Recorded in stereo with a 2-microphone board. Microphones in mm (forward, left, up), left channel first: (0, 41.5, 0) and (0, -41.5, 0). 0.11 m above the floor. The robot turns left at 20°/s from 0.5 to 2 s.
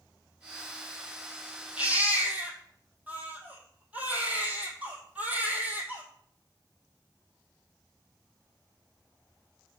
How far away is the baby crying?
About 1.8 m.